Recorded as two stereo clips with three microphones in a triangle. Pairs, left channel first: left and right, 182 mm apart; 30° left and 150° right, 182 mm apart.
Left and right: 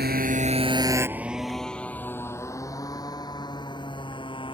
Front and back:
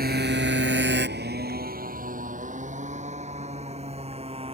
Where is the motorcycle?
120° right; by 4.5 s 155° left.